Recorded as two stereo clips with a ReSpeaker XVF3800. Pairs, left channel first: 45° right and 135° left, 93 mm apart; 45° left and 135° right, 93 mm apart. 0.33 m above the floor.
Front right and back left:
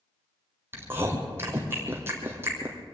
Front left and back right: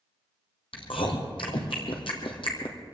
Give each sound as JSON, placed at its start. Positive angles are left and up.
{"t": 0.7, "sound": "chewing", "azimuth_deg": 70, "distance_m": 2.5}